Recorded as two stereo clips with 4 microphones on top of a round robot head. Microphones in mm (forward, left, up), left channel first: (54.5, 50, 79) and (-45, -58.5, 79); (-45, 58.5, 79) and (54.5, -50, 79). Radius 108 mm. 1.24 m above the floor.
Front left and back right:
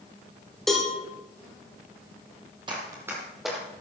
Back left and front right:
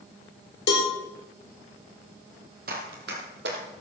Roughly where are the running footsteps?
Right.